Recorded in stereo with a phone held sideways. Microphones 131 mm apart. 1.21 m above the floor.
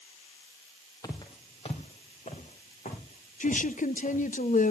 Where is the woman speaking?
80° left, 0.8 m.